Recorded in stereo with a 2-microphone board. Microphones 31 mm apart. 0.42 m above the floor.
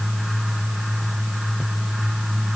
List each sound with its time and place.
Only background noise.